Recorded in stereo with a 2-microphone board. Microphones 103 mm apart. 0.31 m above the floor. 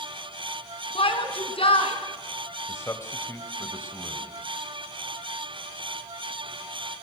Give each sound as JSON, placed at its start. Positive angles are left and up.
{"t": 0.9, "sound": "a shout", "side_deg": 65, "distance_m": 3.5}
{"t": 2.7, "sound": "a man speaking", "side_deg": 25, "distance_m": 1.7}